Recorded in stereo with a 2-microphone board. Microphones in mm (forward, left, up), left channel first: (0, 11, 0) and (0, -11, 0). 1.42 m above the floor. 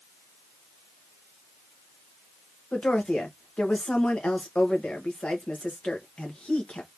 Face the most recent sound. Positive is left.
turn(degrees=80)